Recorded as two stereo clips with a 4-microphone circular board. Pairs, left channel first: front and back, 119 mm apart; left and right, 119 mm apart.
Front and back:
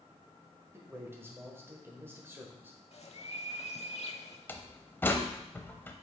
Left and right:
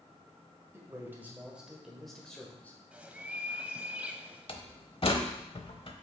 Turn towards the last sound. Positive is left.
turn(degrees=70)